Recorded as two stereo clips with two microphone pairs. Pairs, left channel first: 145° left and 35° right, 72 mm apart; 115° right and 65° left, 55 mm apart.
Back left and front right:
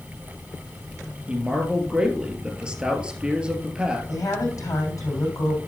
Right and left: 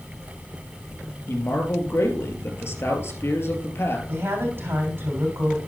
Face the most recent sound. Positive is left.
turn(degrees=105)